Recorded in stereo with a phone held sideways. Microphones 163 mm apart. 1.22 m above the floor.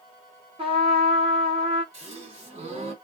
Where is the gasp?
40° right (ahead or behind), 1.4 m.